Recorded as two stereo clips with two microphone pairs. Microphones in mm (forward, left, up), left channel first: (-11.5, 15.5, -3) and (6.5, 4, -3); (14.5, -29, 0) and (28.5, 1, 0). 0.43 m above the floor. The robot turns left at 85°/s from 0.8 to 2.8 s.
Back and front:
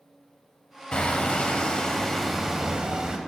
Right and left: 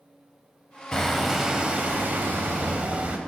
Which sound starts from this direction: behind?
Hammering, at 0.9 s.